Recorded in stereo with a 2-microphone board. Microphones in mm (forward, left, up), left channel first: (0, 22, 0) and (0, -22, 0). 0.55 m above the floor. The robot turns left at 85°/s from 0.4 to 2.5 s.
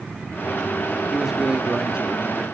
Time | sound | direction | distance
1.1 | a man speaking | 5° right (ahead or behind) | 0.7 m